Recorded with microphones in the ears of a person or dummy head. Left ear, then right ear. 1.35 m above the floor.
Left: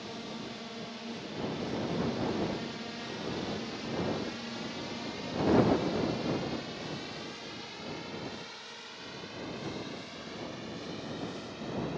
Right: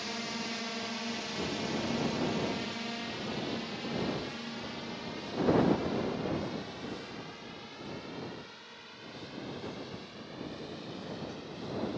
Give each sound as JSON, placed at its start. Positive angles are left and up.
{"t": 0.0, "sound": "a drone", "side_deg": -60}